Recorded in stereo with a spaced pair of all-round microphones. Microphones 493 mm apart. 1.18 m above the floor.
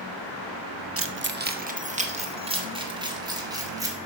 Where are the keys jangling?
30° right (ahead or behind), 0.6 m; by 4.0 s 5° right (ahead or behind), 2 m.